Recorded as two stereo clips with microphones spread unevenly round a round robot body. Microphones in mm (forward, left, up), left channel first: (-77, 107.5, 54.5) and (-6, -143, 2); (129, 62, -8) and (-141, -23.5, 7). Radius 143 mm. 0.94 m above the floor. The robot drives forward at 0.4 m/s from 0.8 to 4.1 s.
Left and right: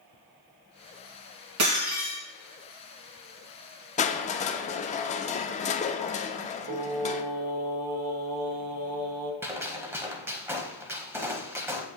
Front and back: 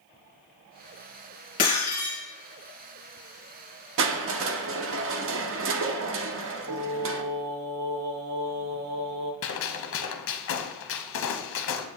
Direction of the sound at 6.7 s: 105° right.